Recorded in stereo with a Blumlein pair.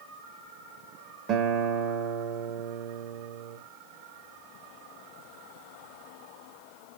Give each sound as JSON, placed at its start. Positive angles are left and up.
{"t": 1.3, "sound": "a guitar", "azimuth_deg": -30, "distance_m": 0.5}